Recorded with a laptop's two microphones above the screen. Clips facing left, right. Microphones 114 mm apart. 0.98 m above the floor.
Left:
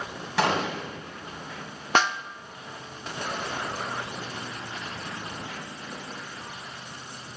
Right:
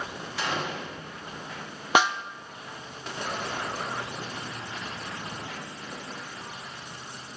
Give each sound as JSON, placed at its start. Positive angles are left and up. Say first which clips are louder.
{"t": 0.4, "sound": "a gunshot", "louder": "left 6 dB", "side_deg": 85, "distance_m": 7.5}
{"t": 1.9, "sound": "a snare drum", "louder": "right 1 dB", "side_deg": -10, "distance_m": 0.6}